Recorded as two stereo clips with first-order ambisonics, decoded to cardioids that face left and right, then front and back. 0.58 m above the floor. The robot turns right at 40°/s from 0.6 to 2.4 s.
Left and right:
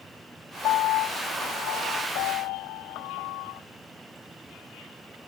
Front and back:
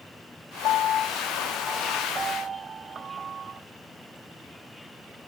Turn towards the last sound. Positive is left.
turn(degrees=115)